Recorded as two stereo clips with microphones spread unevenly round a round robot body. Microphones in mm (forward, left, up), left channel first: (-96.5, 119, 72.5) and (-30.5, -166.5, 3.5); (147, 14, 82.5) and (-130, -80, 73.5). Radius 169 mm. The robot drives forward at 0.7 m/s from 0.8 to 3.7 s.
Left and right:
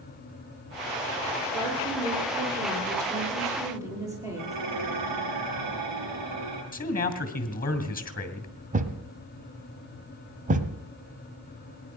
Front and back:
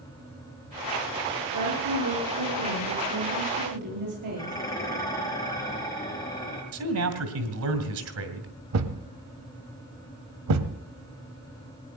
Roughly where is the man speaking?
Behind.